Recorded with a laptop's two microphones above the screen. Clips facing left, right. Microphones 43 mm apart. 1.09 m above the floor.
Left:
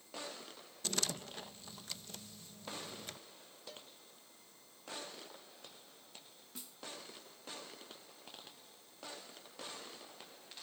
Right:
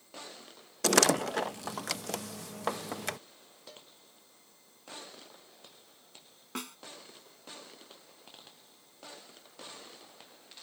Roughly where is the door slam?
Right.